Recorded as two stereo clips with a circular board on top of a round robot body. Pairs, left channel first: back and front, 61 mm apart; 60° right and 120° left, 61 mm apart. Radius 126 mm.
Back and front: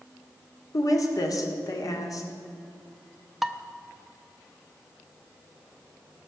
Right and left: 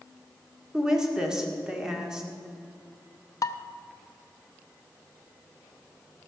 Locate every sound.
0.7 s a woman speaking: 160° right, 1.9 m
3.4 s dishes clattering: 85° right, 0.6 m